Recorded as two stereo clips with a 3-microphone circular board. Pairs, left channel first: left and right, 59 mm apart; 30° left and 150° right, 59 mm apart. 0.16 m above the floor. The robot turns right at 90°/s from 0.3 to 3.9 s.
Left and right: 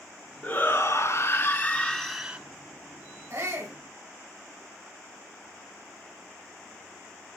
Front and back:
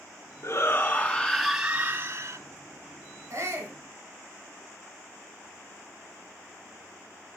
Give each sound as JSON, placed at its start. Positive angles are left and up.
{"t": 0.4, "sound": "a shout", "azimuth_deg": 30, "distance_m": 1.5}
{"t": 3.3, "sound": "a shout", "azimuth_deg": -125, "distance_m": 3.5}